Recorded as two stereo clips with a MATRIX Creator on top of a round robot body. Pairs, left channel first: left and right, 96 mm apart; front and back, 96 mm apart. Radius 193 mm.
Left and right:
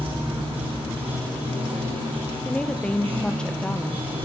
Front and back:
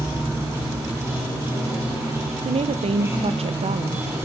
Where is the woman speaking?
170° left, 0.9 m.